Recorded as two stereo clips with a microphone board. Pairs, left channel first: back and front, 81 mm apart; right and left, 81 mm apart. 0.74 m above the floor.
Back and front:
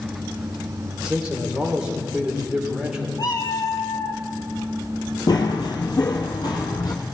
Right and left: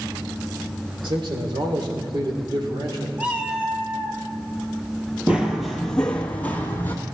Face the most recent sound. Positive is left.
turn(degrees=-150)